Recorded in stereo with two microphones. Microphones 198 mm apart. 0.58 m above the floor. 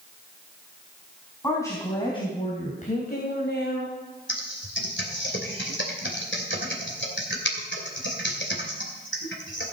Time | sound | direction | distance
1.4 | a woman speaking | 15° left (ahead or behind) | 4 m
4.3 | typing on a keyboard | 70° left (ahead or behind) | 2.5 m